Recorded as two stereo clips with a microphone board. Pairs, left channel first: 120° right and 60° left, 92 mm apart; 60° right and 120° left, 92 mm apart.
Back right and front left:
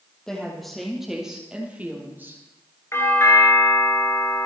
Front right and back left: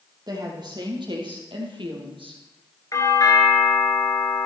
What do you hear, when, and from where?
0.3 s a woman speaking: 155° left, 4 m; by 2.4 s 120° left, 3.5 m
2.9 s a doorbell: 80° right, 2.5 m